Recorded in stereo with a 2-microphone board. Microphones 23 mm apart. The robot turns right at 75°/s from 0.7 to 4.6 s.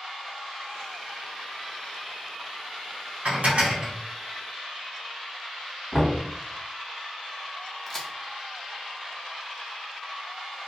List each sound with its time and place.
3.2 s dishes clattering: 85° right, 0.9 m; by 3.9 s 35° right, 0.9 m
5.9 s knocking: 30° right (ahead or behind), 1.6 m
7.9 s a crack: 20° left (ahead or behind), 0.7 m